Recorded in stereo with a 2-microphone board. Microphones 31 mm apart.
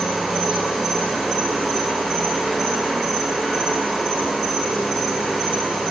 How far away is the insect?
About 1.2 m.